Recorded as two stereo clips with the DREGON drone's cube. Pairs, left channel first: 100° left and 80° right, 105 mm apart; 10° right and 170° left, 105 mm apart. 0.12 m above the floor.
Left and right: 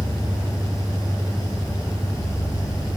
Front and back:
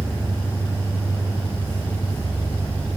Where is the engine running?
45° left, 7.5 m.